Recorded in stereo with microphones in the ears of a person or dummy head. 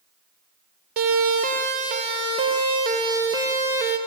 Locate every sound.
1.0 s a siren: 55° right (ahead or behind), 5.5 m; by 4.0 s 10° right (ahead or behind), 5.5 m